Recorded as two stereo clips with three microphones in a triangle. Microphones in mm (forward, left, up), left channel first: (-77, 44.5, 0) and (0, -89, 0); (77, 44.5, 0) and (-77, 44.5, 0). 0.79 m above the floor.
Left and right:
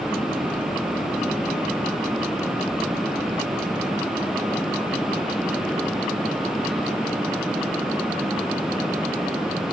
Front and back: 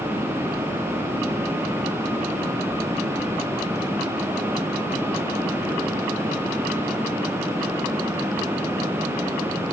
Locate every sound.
Only background noise.